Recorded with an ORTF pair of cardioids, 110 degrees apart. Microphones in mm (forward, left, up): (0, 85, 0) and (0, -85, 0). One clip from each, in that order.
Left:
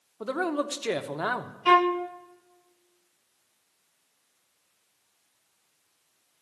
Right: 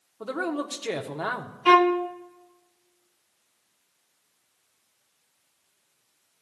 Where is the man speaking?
10° left, 0.9 m.